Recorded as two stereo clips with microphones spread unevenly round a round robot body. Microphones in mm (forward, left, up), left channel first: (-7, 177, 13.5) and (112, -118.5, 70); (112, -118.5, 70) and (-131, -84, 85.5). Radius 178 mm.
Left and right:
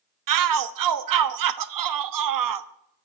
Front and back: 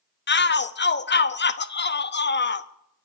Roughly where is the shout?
Ahead right.